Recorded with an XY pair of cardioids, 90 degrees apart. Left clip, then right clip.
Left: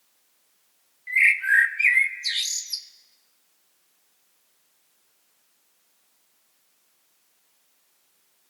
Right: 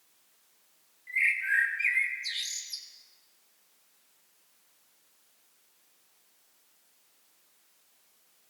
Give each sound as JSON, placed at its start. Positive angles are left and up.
{"t": 1.1, "sound": "a bird", "azimuth_deg": 70, "distance_m": 1.2}